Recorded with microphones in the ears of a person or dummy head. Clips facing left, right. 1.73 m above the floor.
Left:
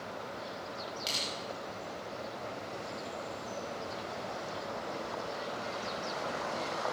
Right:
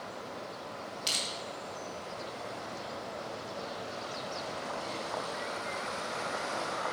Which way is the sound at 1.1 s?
5° left (ahead or behind).